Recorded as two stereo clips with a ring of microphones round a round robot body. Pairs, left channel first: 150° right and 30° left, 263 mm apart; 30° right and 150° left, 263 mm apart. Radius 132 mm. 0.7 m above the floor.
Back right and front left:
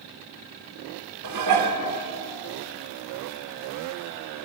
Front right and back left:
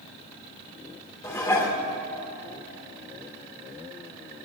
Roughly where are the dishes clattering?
Ahead left.